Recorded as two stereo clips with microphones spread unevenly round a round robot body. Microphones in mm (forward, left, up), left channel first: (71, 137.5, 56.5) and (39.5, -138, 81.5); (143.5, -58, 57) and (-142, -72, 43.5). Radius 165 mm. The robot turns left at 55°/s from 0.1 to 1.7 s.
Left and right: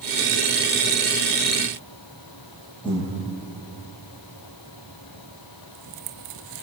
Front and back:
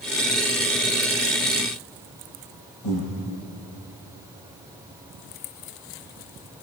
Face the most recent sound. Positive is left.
turn(degrees=10)